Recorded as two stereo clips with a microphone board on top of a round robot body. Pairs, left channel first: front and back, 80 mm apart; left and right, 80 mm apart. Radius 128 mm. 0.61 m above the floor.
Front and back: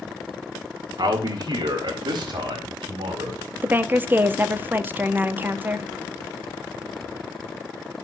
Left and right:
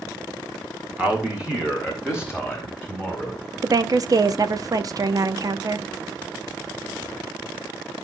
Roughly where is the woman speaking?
Behind right.